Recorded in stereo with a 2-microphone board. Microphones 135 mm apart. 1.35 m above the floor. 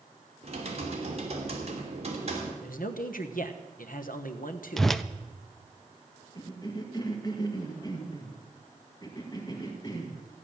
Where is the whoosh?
Centre (ahead or behind), 0.5 m.